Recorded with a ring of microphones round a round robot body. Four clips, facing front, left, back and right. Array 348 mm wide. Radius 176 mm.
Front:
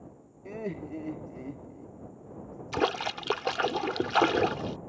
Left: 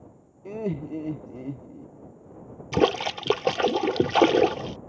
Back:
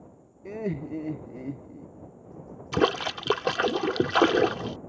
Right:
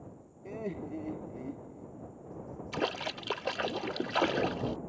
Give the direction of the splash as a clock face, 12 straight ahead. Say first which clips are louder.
Left 12 dB, back 4 dB; 8 o'clock.